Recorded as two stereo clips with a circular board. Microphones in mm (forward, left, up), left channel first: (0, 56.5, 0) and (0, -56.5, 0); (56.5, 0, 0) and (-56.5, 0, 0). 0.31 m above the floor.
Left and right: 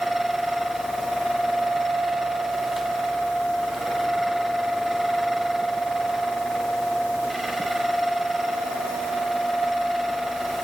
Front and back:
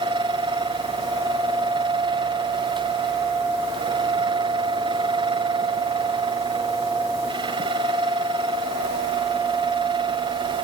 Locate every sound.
Only background noise.